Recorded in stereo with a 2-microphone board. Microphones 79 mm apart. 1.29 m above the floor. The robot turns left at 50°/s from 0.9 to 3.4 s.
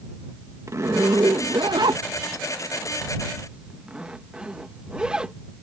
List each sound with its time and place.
0.7 s a zipper: 40° right (ahead or behind); by 5.3 s 10° right (ahead or behind)